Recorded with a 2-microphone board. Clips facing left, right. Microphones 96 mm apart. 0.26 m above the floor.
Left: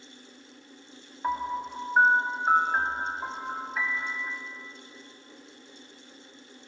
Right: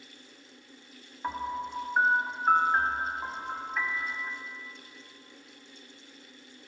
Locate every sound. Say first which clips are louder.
1.2 s a piano: left 3 dB; 10° left (ahead or behind), 1.0 m